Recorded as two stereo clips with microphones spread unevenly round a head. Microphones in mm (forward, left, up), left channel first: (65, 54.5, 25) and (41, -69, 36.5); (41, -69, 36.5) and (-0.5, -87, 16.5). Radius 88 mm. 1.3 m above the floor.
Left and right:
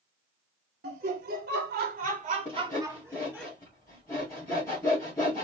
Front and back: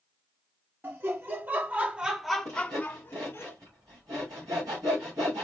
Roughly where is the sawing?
Behind.